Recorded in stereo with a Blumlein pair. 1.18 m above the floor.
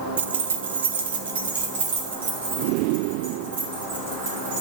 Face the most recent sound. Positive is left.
turn(degrees=-60)